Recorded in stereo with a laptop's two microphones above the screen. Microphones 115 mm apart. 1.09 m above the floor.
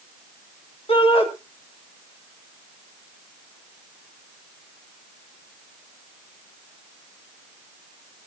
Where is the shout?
55° left (ahead or behind), 2.5 m.